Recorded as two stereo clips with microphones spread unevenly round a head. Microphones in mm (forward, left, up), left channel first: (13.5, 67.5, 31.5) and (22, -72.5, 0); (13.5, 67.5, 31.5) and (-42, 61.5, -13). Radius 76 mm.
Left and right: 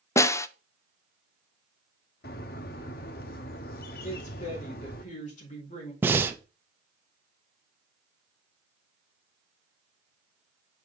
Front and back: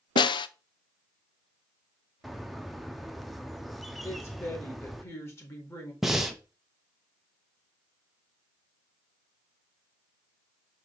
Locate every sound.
0.2 s a snare drum: 15° left, 0.5 m
2.2 s a bird: 85° left, 0.8 m
4.0 s a woman speaking: 55° left, 4 m
6.0 s breathing: 145° right, 0.7 m